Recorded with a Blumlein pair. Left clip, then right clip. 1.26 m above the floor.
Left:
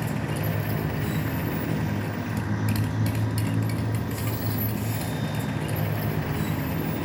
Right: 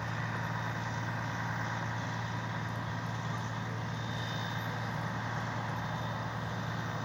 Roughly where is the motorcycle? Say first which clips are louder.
Left 6 dB; ahead left.